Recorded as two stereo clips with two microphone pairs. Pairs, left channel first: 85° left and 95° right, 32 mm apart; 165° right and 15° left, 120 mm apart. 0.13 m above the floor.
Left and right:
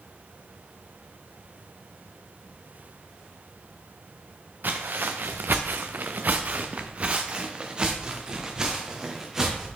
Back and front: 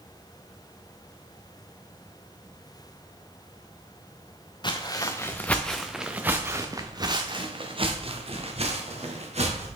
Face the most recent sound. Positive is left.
turn(degrees=-10)